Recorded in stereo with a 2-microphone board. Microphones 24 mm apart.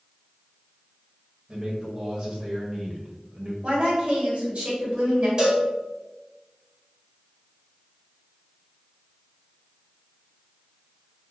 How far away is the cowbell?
About 1.8 m.